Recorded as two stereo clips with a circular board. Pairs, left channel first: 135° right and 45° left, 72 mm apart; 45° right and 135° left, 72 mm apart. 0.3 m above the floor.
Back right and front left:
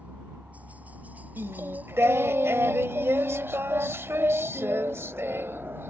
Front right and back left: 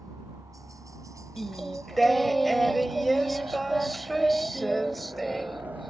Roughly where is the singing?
Ahead left.